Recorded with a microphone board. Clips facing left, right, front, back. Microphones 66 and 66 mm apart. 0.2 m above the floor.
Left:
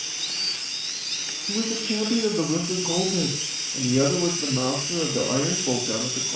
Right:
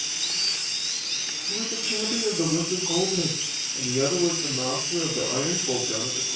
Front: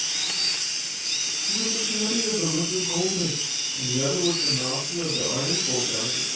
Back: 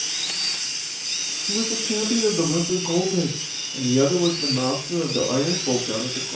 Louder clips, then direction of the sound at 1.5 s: Left 6 dB, back 6 dB; 135° left.